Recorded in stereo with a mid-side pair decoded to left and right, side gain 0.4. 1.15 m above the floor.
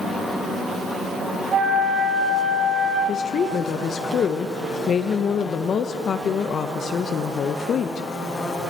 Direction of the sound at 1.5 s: 65° right.